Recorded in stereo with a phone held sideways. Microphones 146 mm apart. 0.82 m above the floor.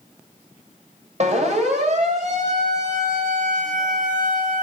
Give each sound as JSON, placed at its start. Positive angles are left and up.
{"t": 1.2, "sound": "a siren", "side_deg": -50, "distance_m": 5.0}